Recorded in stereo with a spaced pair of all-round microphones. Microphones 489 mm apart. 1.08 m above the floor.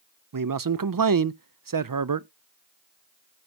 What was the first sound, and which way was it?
A man speaking, 45° right (ahead or behind).